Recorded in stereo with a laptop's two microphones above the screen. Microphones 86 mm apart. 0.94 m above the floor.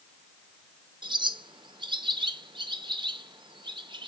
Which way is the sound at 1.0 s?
70° right (ahead or behind).